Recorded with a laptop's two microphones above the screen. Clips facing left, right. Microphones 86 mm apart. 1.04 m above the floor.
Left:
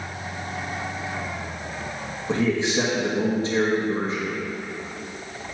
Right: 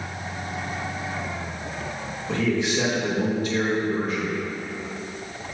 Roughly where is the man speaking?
Left.